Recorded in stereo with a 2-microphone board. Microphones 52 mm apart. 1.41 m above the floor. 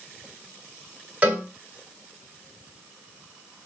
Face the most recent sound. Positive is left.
turn(degrees=-30)  # may be behind; listen again after turning